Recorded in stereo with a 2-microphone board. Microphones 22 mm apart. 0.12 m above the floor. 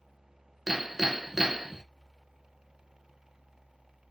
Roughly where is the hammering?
Centre.